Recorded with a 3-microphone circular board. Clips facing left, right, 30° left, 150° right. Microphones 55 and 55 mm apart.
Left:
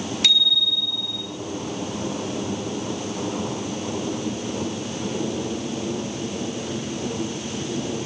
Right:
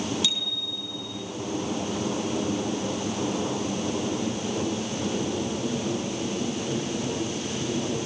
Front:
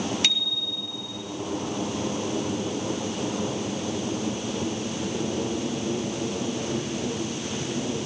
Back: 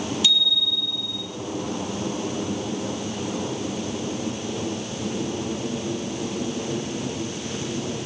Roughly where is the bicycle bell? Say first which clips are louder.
Left 8 dB, back 5 dB; ahead left.